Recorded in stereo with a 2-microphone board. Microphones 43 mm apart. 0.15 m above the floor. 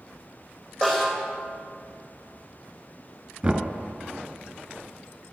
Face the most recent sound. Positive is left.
turn(degrees=-15)  # may be behind; listen again after turning